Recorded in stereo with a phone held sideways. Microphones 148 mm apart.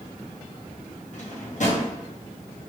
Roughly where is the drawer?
Left.